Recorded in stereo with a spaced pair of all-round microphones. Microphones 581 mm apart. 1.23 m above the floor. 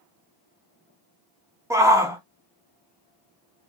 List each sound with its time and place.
1.7 s a shout: 5° right (ahead or behind), 1.0 m